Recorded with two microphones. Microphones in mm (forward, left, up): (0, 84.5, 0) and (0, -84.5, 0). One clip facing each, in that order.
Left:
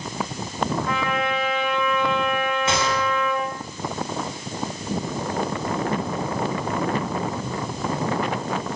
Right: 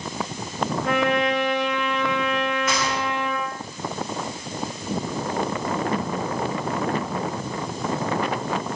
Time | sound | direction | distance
0.8 | a trumpet | 75° right (ahead or behind) | 6 m
2.7 | a gunshot | 30° left (ahead or behind) | 8.5 m